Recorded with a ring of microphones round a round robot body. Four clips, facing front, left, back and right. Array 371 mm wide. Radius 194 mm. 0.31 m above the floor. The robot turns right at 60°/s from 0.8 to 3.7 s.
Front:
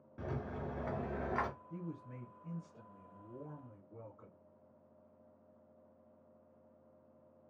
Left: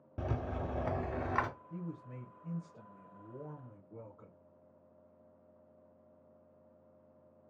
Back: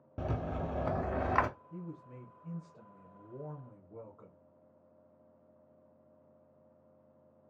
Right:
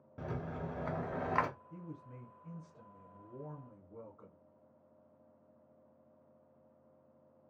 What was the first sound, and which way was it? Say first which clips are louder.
A rattle: left 3 dB, back 5 dB; 150° left.